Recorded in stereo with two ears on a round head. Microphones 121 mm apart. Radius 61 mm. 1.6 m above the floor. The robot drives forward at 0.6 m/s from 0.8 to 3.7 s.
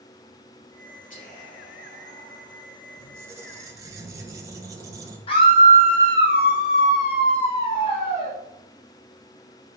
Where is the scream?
40° left (ahead or behind), 1.6 m.